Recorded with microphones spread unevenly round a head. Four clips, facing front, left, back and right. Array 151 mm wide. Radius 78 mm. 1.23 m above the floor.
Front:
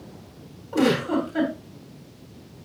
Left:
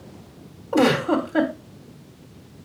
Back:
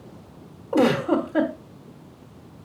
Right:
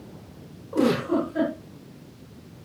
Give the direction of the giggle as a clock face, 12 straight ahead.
8 o'clock.